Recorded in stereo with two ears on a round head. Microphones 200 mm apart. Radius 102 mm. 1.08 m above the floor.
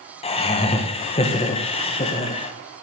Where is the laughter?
25° left (ahead or behind), 1.0 m.